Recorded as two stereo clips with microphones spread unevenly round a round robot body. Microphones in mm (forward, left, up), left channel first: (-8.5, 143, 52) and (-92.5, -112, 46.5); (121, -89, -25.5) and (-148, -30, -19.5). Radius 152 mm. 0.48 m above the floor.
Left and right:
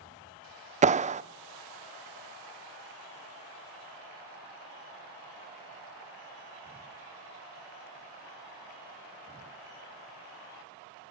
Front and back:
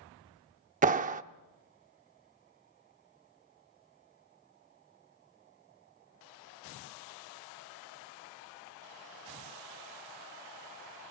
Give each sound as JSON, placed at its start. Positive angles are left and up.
{"t": 0.8, "sound": "a clap", "azimuth_deg": -150, "distance_m": 0.7}